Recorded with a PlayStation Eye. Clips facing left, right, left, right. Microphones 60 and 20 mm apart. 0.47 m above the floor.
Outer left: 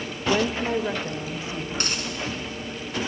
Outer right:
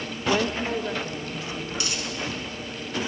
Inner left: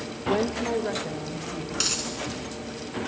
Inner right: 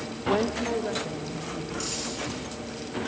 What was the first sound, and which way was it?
A woman speaking, 5° right (ahead or behind).